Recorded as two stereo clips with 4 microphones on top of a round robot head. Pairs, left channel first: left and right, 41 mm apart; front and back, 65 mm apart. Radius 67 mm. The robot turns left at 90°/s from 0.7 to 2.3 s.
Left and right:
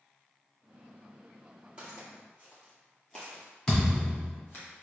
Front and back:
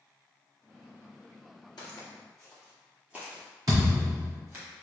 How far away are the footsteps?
About 1.1 m.